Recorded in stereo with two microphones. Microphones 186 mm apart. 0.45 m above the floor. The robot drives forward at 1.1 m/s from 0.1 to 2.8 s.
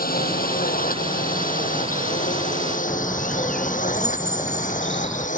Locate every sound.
0.0 s a drone: 45° left (ahead or behind); by 5.4 s 40° left (ahead or behind)
2.9 s a bird: 5° left (ahead or behind)